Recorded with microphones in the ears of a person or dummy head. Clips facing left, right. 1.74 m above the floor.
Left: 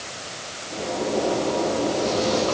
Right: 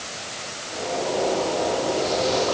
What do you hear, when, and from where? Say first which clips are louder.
0.7 s a zipper: left 1 dB; 45° left (ahead or behind), 10 m